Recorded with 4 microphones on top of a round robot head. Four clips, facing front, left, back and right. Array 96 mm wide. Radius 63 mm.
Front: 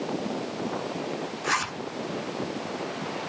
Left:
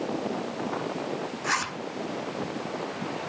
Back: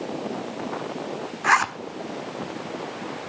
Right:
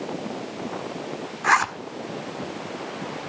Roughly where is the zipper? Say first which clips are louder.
Right 10 dB, back 9 dB; behind right.